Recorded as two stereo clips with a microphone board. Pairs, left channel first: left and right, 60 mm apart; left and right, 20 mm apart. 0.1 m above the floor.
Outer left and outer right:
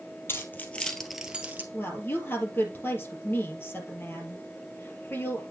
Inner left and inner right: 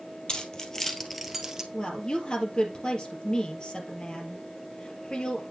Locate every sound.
0.3 s keys jangling: 40° left (ahead or behind), 1.7 m; by 1.6 s 30° right (ahead or behind), 1.5 m
1.7 s a woman speaking: 40° left (ahead or behind), 3 m